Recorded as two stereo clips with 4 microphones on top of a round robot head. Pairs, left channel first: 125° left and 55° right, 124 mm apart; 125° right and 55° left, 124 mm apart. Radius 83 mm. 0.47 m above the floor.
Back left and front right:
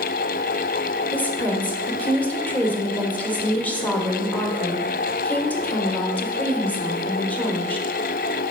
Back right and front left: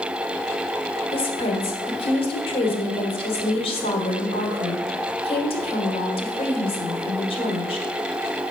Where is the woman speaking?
160° right, 1.3 m.